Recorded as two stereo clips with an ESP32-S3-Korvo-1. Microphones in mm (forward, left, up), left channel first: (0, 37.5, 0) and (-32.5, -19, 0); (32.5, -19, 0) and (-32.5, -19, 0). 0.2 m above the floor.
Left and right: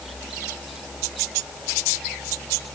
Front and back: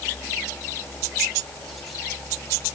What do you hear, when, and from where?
Only background noise.